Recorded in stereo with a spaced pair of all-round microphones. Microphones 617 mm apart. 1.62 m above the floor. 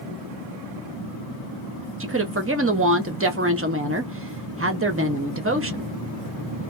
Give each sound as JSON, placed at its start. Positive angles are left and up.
{"t": 2.0, "sound": "a woman speaking", "side_deg": -25, "distance_m": 0.6}